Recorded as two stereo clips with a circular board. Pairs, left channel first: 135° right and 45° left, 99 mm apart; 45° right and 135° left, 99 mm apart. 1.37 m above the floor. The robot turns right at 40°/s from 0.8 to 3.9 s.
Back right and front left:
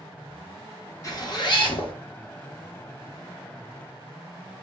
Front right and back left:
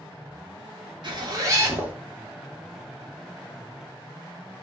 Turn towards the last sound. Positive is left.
turn(degrees=-75)